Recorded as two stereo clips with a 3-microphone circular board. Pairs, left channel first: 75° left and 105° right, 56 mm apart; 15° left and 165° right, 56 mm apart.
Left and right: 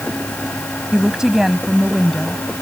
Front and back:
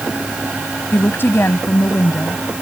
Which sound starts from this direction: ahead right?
A woman speaking, at 0.9 s.